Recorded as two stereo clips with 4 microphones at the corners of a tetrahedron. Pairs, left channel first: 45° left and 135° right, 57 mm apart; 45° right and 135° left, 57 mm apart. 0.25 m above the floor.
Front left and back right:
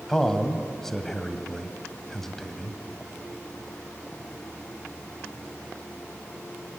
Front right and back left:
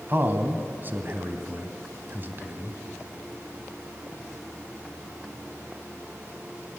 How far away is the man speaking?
About 1.5 m.